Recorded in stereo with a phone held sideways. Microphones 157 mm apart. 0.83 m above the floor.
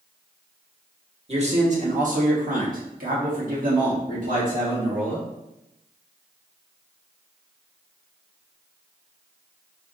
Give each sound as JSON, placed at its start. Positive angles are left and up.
{"t": 1.3, "sound": "a man speaking", "side_deg": -40, "distance_m": 1.2}